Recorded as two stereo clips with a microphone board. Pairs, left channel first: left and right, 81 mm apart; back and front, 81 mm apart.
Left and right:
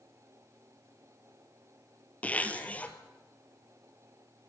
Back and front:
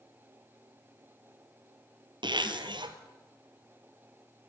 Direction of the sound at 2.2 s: 20° left.